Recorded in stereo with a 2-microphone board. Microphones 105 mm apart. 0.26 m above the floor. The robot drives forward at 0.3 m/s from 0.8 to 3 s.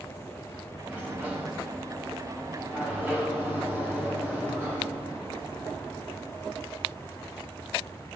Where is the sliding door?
10° right (ahead or behind), 5 m.